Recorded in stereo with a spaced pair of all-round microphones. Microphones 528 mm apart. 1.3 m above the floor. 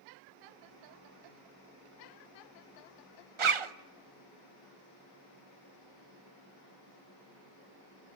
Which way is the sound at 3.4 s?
65° right (ahead or behind).